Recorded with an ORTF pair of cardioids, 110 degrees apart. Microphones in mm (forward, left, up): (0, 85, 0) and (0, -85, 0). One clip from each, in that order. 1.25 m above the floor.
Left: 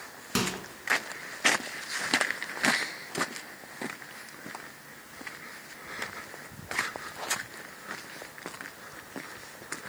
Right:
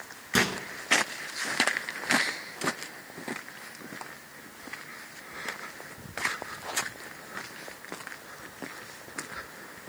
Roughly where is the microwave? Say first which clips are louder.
Right 5 dB; ahead.